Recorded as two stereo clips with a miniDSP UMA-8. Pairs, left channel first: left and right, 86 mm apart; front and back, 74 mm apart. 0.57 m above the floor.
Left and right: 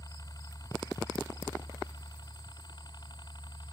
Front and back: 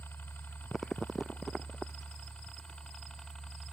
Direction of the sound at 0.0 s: 60° left.